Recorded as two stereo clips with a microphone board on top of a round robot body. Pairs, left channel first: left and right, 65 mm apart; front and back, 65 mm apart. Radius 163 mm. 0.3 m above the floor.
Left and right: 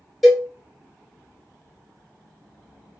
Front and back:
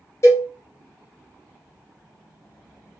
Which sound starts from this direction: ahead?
A cowbell, at 0.2 s.